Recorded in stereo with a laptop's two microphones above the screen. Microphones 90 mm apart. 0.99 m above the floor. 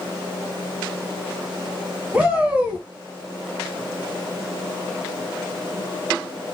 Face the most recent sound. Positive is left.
turn(degrees=-15)  # may be behind; listen again after turning